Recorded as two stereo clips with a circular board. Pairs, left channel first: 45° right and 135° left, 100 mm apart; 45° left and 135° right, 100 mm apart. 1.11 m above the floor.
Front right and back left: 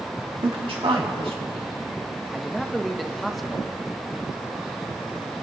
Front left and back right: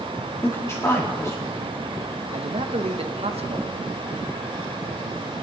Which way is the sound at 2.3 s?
135° right.